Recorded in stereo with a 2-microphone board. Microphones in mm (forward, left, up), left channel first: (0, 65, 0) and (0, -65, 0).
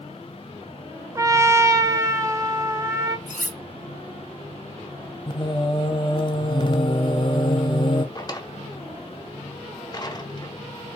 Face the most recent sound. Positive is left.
turn(degrees=35)  # may be behind; listen again after turning